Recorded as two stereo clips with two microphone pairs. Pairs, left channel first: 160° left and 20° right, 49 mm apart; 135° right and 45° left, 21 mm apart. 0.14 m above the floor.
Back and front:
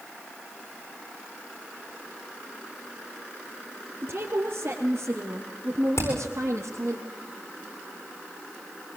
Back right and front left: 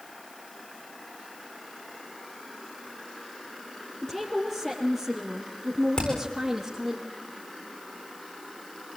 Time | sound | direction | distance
4.0 | a woman speaking | 55° right | 3.5 m
6.0 | hammering | 175° right | 8 m